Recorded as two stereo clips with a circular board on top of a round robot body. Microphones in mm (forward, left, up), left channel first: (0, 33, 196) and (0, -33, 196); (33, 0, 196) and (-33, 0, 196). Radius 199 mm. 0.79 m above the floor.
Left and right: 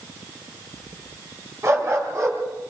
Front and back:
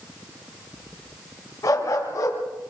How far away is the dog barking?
About 4 m.